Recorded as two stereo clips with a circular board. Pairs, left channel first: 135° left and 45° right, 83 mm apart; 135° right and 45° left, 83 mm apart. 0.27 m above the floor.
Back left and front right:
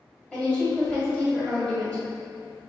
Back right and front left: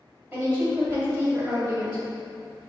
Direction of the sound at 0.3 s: 75° left.